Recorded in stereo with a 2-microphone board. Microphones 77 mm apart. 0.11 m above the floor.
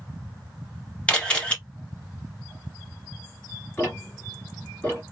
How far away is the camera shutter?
About 1.0 m.